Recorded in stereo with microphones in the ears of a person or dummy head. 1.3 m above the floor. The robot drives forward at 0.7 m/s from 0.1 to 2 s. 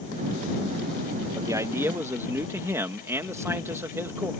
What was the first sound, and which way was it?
A man speaking, 15° right (ahead or behind).